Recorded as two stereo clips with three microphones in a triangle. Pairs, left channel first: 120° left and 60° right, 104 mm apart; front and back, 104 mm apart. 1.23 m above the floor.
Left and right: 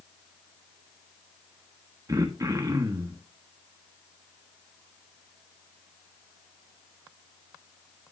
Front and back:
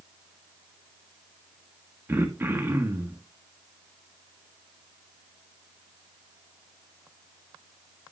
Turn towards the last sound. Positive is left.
turn(degrees=-115)